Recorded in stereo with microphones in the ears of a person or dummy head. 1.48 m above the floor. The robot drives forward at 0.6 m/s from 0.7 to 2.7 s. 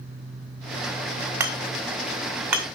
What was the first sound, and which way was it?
Hammering, 15° right (ahead or behind).